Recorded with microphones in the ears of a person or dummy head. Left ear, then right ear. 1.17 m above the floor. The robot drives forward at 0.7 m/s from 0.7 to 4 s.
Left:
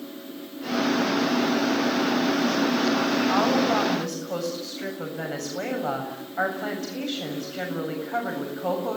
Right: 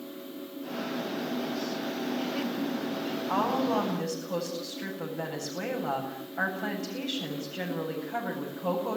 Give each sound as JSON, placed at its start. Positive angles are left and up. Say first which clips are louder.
{"t": 3.3, "sound": "a woman speaking", "louder": "left 3 dB", "side_deg": 25, "distance_m": 7.0}